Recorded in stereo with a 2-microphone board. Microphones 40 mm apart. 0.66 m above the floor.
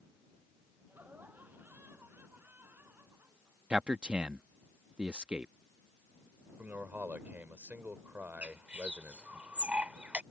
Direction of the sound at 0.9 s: 55° right (ahead or behind).